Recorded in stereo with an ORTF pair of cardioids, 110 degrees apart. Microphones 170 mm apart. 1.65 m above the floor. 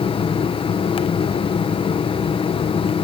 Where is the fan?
35° left, 1.1 m.